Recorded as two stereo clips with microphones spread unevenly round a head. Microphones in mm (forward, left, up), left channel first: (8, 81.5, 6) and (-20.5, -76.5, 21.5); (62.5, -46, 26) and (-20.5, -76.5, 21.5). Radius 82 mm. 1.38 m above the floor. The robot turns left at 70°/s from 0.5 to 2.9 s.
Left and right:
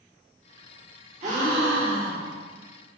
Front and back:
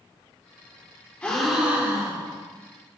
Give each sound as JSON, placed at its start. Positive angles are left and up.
{"t": 1.2, "sound": "a gasp", "azimuth_deg": -55, "distance_m": 2.0}